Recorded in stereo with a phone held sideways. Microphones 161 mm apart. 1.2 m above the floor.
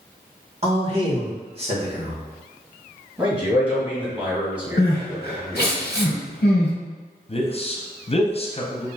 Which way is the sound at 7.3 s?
35° left (ahead or behind).